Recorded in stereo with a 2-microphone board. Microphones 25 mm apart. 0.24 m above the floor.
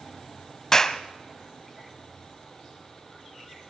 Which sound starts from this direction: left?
A clap, at 0.7 s.